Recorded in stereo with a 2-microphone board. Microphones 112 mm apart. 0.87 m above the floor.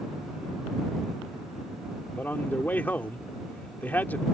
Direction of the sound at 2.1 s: 15° left (ahead or behind).